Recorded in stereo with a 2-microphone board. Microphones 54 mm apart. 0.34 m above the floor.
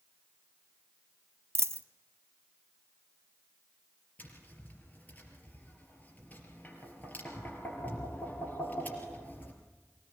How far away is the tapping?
About 4 m.